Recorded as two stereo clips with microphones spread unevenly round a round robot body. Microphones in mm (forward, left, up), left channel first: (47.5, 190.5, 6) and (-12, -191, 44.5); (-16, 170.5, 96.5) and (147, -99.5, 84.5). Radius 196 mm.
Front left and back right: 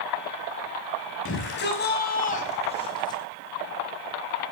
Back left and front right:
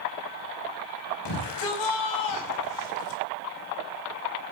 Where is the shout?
140° left, 5 m; by 3.2 s 160° left, 4.5 m.